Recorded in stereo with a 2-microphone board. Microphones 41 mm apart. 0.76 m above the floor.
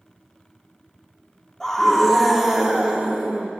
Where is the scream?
10° left (ahead or behind), 2 m; by 3.5 s 45° right (ahead or behind), 2.5 m.